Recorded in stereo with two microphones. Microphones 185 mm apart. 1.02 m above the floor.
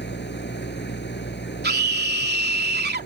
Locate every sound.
0.0 s an engine running: 80° left
1.6 s a scream: 70° right (ahead or behind)